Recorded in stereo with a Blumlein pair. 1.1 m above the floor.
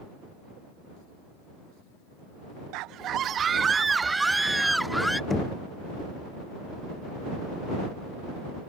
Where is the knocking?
10° left.